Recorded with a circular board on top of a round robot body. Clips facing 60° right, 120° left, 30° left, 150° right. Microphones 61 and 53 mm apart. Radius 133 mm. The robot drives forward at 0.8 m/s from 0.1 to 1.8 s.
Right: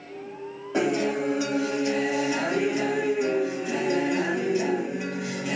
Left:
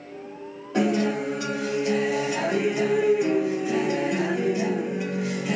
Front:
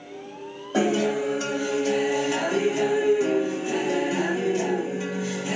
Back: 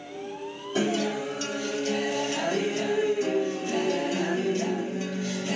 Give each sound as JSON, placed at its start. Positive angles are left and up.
{"t": 0.7, "sound": "a guitar", "azimuth_deg": 15, "distance_m": 1.7}